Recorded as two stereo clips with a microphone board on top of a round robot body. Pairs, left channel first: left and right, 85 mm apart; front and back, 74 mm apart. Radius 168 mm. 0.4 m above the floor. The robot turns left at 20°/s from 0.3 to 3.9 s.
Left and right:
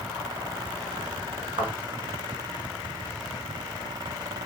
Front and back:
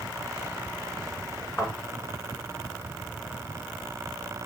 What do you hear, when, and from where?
1.6 s a thud: 65° right, 3.5 m